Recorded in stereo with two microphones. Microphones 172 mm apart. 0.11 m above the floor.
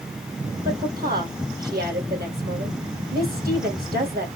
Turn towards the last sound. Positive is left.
turn(degrees=-65)  # may be behind; listen again after turning